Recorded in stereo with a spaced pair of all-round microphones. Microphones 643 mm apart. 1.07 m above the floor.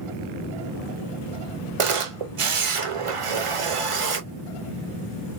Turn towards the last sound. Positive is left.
turn(degrees=-55)  # may be behind; listen again after turning